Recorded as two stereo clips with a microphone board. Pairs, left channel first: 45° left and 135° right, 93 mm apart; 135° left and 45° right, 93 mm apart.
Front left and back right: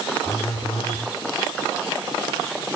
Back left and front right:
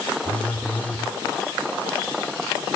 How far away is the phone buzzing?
About 4 m.